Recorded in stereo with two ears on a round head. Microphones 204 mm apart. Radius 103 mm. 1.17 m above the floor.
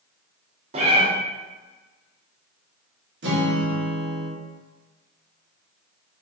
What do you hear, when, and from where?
0.7 s a cat meowing: 25° right (ahead or behind), 0.7 m
3.2 s a guitar: 50° right (ahead or behind), 1.0 m